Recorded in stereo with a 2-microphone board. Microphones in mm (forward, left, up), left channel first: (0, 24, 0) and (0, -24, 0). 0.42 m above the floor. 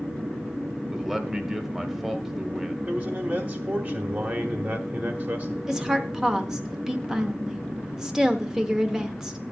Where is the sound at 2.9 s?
40° right (ahead or behind), 1.3 m.